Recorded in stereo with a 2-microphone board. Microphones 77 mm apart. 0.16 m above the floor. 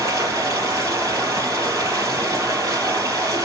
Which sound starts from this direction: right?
Running water, at 0.0 s.